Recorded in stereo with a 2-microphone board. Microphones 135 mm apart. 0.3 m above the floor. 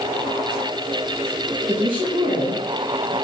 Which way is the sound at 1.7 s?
5° right (ahead or behind).